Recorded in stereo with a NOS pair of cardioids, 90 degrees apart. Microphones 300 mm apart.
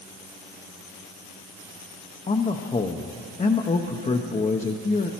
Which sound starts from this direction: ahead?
A man speaking, at 2.3 s.